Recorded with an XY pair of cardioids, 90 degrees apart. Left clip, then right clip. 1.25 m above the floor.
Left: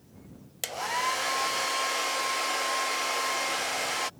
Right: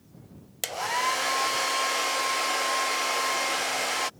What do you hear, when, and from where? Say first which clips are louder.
0.6 s a hair dryer: right 2 dB; 20° right